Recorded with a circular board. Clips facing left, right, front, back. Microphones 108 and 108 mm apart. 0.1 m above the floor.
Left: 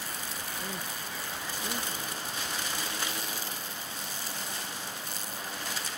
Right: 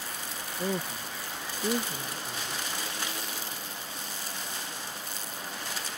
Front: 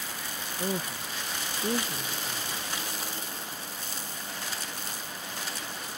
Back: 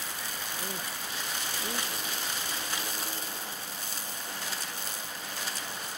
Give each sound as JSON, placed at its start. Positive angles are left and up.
{"t": 0.6, "sound": "a woman speaking", "azimuth_deg": -55}